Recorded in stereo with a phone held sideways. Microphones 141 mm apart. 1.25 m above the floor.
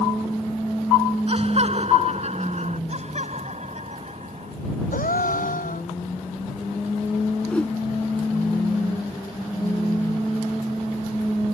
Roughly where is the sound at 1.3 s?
Right.